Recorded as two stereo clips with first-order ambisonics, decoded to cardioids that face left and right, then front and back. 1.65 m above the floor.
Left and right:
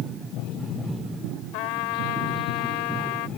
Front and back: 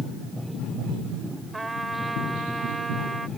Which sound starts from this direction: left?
A trumpet, at 1.5 s.